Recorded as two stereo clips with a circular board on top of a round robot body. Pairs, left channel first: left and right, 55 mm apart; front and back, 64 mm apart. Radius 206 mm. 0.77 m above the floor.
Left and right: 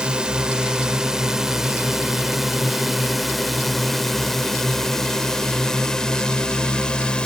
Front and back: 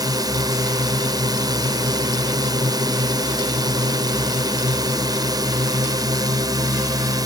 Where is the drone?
165° right; by 7.3 s 160° left.